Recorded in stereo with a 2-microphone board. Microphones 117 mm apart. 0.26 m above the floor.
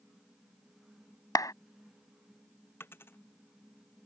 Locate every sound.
1.4 s a clap: 30° left (ahead or behind)
2.8 s a dropped coin: 20° left (ahead or behind)